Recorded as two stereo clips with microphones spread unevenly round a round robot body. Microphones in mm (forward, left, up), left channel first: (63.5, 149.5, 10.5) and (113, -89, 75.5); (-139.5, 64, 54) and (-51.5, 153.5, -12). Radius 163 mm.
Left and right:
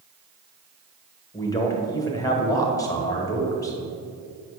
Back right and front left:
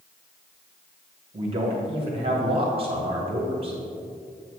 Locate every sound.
1.3 s a man speaking: 35° left, 2 m